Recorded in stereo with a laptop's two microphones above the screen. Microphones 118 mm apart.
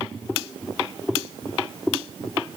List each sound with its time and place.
Only background noise.